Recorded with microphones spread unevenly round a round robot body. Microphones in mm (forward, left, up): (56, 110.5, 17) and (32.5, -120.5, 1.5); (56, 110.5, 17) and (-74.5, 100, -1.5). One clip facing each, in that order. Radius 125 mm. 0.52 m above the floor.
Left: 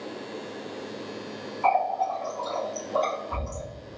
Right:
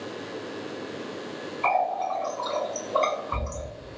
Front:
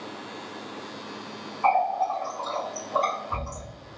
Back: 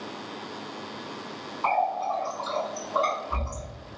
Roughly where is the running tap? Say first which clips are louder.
Left 1 dB, front 3 dB; ahead right.